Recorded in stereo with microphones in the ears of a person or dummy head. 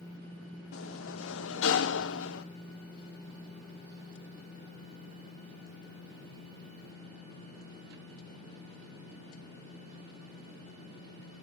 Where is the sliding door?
80° left, 1.0 m.